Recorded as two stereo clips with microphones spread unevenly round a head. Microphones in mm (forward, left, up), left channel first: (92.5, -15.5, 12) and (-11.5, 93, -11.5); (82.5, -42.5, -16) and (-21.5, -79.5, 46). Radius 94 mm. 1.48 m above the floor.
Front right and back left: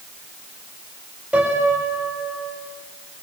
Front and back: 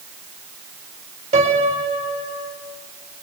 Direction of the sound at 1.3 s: 140° right.